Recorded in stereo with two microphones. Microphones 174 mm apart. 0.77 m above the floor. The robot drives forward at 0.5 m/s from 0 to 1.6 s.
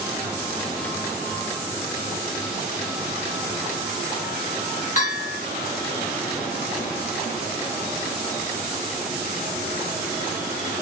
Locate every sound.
5.0 s a bell: 45° left (ahead or behind), 1.7 m